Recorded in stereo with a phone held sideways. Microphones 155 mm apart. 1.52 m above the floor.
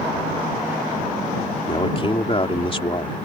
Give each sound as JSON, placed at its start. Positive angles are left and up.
{"t": 1.7, "sound": "a man speaking", "side_deg": 35}